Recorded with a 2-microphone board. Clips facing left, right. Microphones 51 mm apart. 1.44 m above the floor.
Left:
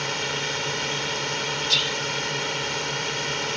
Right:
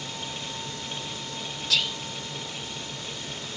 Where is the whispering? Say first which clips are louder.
Even; centre (ahead or behind).